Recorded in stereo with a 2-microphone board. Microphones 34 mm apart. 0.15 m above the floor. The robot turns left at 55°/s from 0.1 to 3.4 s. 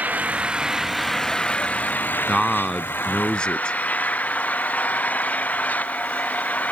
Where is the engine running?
130° right; by 6.7 s 50° left.